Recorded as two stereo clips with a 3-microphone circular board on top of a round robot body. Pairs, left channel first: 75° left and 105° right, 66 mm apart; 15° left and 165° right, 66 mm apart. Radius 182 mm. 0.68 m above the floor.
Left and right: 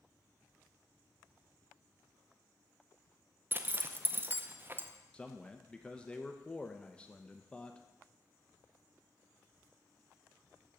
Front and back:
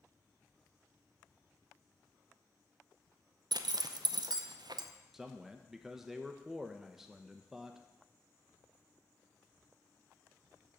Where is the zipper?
165° right, 0.6 m.